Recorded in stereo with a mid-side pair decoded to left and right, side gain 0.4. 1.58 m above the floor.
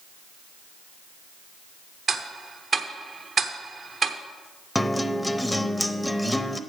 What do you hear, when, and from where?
2.1 s ticking: 50° right, 0.9 m
4.8 s a guitar: 5° left, 0.6 m